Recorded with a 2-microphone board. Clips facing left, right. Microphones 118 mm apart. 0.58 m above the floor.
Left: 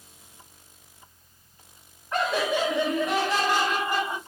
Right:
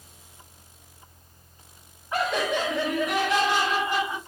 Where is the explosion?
No explosion in this recording.